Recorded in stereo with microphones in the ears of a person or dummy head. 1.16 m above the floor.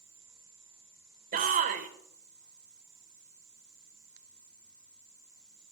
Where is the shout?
45° right (ahead or behind), 1.6 m.